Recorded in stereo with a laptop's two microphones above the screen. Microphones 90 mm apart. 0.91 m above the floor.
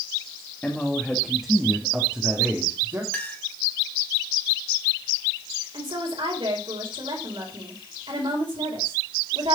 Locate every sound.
0.6 s a man speaking: 20° left (ahead or behind), 1.7 m; by 3.0 s 40° right (ahead or behind), 2.5 m
3.1 s a clink: 20° left (ahead or behind), 3 m
5.7 s a woman speaking: 75° right (ahead or behind), 4 m